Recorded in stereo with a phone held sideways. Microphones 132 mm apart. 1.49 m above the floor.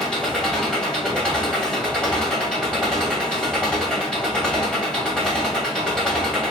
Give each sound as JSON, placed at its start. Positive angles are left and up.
{"t": 0.0, "sound": "an engine running", "side_deg": 5, "distance_m": 1.2}